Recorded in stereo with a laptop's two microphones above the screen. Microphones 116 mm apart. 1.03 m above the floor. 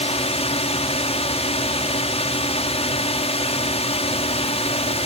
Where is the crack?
No crack in this recording.